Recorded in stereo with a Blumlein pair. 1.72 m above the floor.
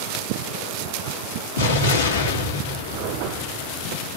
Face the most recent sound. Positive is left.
turn(degrees=65)